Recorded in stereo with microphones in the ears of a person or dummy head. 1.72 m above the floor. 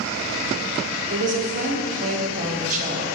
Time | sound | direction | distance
1.1 | a woman speaking | 40° right (ahead or behind) | 1.0 m